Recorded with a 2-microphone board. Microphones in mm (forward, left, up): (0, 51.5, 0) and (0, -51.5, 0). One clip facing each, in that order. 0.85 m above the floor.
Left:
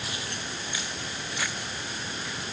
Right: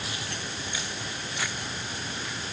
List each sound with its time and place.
Only background noise.